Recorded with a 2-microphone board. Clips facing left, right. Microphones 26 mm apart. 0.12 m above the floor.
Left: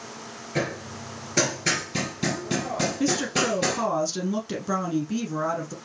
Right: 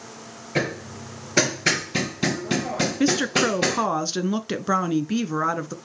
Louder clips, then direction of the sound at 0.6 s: Right 3 dB; 30° right (ahead or behind).